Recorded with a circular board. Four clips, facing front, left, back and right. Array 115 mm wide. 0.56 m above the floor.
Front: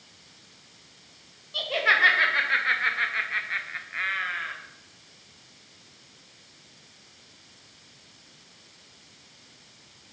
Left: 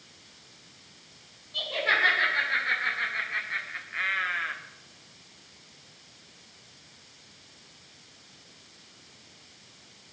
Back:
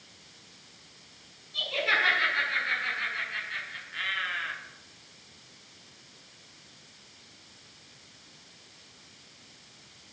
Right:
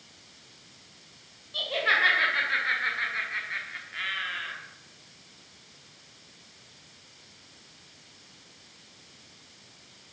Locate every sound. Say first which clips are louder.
1.5 s laughter: right 1 dB, front 5 dB; 15° right, 3.5 m; by 4.5 s 80° left, 1.5 m